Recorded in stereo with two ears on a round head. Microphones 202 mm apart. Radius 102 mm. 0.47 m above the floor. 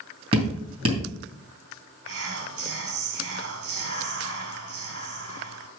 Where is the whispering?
70° right (ahead or behind), 2.5 m.